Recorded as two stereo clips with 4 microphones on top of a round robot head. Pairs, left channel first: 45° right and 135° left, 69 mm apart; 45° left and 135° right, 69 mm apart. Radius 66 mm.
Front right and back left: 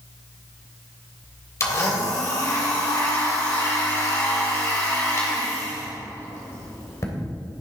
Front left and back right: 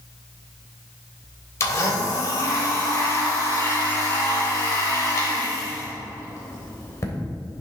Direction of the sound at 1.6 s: Straight ahead.